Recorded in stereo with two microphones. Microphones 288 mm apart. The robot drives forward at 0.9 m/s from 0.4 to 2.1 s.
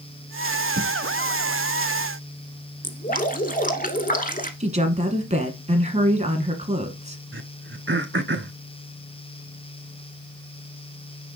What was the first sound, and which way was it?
Writing, 45° right (ahead or behind).